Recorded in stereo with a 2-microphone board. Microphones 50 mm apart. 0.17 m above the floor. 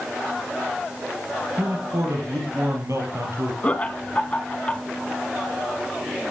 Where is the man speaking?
70° right (ahead or behind), 4.5 m.